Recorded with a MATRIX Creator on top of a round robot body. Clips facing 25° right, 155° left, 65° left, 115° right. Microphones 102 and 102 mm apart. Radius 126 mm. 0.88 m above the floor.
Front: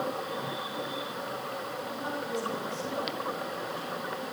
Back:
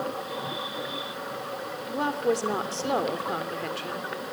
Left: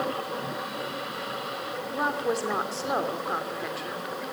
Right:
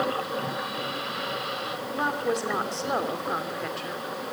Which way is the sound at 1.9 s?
155° left.